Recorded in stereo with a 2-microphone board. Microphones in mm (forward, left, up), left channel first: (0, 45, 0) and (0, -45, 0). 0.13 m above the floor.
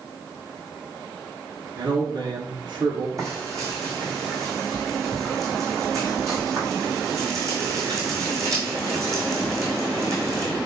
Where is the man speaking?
45° right (ahead or behind), 1.5 m.